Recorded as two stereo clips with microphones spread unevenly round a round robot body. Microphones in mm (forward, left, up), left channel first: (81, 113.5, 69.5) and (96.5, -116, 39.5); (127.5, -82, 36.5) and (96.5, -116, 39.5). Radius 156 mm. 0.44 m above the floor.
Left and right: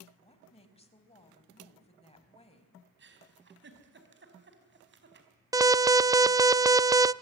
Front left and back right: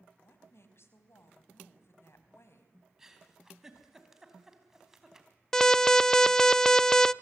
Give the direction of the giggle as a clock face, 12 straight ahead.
2 o'clock.